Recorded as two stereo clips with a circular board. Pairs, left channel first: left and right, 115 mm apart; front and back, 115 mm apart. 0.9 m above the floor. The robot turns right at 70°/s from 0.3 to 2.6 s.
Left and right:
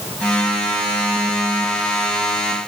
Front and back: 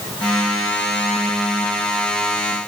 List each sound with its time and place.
Only background noise.